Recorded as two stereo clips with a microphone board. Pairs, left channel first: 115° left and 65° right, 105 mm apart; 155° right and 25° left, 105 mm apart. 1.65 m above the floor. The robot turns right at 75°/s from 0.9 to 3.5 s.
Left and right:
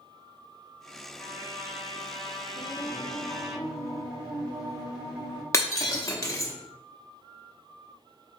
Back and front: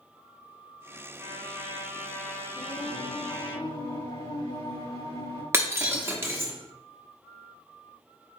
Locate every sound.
1.2 s a trumpet: 45° left, 1.5 m; by 3.5 s 140° right, 1.5 m
2.5 s singing: 140° left, 2.5 m; by 5.4 s 150° right, 2.5 m
5.5 s breaking glass: 75° left, 0.9 m